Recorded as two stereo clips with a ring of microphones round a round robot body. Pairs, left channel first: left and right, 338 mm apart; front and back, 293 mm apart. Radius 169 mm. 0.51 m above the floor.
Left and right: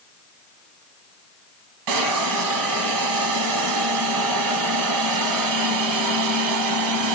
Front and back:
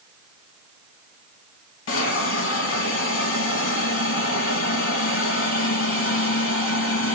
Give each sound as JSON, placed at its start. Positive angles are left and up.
{"t": 1.9, "sound": "a hiss", "azimuth_deg": -55, "distance_m": 1.0}